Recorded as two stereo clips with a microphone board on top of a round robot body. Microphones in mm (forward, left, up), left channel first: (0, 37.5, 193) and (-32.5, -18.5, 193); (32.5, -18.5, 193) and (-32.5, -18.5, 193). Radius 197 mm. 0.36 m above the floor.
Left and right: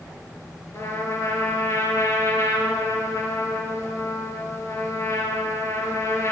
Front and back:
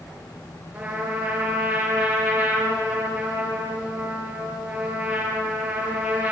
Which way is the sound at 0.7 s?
110° left.